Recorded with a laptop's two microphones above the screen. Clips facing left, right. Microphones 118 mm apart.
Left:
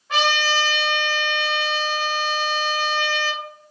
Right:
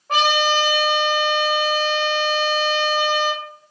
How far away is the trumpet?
About 1.4 m.